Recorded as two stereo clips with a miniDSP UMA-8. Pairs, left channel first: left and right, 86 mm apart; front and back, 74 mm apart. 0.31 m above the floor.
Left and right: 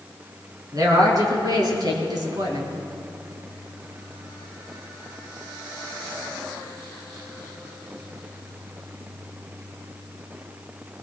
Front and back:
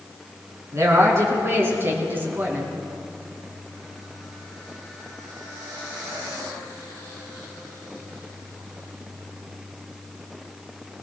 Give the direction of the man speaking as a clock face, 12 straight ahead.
4 o'clock.